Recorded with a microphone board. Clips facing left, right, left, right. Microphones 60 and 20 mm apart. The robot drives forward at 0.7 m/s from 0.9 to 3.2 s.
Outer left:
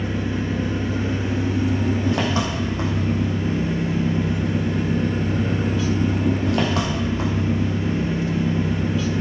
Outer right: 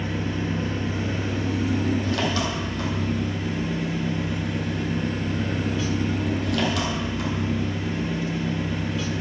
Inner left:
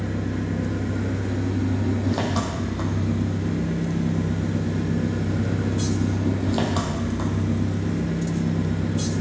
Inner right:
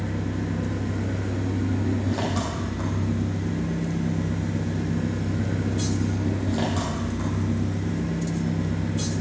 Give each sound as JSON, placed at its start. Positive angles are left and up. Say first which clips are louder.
{"t": 0.0, "sound": "an engine running", "louder": "outer left 3 dB, inner left 2 dB", "side_deg": 25, "distance_m": 4.0}